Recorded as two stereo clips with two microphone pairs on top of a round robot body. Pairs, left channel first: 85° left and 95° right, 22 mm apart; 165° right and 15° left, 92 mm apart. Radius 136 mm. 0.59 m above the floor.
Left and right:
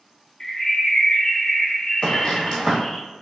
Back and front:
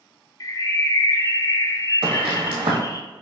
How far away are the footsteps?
About 1.6 m.